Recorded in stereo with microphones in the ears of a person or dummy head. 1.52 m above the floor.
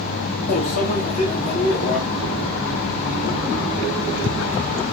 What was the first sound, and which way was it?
A microwave, 40° left (ahead or behind).